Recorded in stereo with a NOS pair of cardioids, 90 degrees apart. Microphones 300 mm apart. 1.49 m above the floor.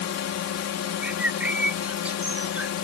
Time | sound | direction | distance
0.0 | a drone | 55° left | ?
1.0 | a bird | 5° right | ?